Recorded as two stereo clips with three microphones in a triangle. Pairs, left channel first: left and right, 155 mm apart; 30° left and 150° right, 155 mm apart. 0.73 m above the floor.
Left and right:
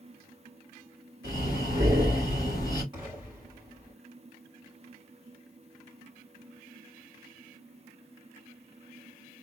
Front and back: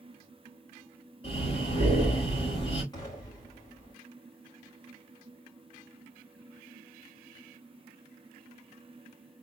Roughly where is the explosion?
Ahead right.